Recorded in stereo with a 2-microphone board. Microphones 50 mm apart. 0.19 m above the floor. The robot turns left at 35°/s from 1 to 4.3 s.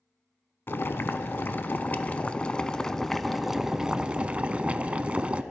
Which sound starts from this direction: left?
Boiling, at 0.7 s.